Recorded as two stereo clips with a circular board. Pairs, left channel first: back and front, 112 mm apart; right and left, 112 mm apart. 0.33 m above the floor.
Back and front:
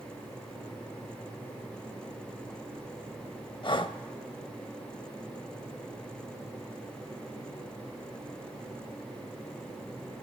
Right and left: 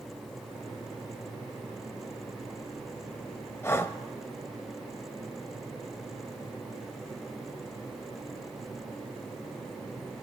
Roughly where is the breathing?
Behind right.